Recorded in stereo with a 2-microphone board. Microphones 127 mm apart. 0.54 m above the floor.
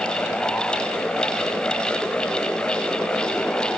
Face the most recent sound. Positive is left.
No sound to turn to.